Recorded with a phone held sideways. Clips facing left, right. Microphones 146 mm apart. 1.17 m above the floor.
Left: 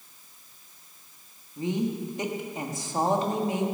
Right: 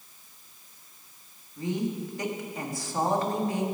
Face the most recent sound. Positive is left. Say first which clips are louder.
# left 2 dB
turn(degrees=20)  # may be behind; listen again after turning